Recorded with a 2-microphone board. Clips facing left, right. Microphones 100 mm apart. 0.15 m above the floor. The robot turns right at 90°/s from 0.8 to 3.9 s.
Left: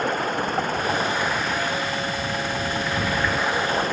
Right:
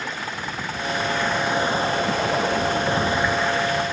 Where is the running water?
130° left; by 3.9 s 50° left.